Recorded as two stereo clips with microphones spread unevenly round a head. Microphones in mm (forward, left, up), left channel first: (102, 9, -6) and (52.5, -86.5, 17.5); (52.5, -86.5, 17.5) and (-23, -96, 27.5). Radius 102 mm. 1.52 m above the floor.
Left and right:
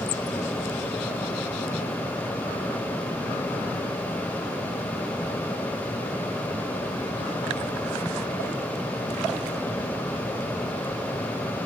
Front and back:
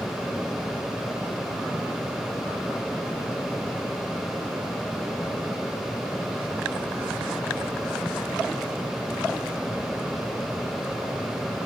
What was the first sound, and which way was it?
Only background noise.